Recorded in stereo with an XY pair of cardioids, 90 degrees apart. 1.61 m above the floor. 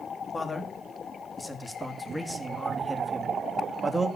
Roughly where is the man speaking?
Ahead left.